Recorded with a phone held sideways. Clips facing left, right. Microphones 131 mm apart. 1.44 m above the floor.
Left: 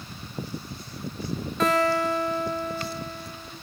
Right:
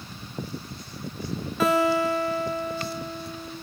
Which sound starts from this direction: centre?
A guitar, at 1.6 s.